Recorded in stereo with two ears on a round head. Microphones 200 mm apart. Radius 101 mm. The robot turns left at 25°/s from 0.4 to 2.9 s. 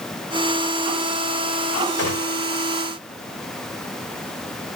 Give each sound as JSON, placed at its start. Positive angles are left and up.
{"t": 2.0, "sound": "a gunshot", "side_deg": 70, "distance_m": 3.0}